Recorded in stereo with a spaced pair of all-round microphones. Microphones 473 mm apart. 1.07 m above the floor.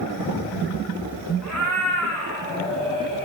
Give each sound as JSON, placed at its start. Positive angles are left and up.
{"t": 1.4, "sound": "a cat meowing", "side_deg": 35, "distance_m": 5.0}